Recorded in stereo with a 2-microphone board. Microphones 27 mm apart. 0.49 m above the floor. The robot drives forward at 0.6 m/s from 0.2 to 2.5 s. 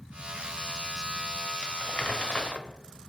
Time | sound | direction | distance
1.6 | crumpling | 45° left (ahead or behind) | 1.2 m